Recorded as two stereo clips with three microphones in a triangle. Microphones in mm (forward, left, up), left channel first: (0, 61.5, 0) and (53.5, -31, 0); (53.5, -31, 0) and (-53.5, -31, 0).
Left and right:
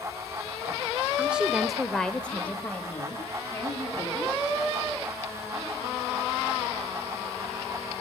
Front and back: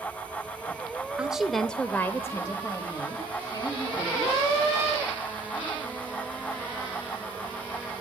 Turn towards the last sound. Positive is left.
turn(degrees=55)